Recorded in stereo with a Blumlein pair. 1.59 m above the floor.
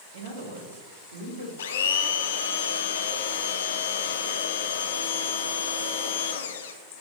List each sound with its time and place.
0.1 s a man speaking: 55° right, 1.8 m; by 1.5 s 75° right, 2.5 m
1.6 s a blender: 60° left, 0.6 m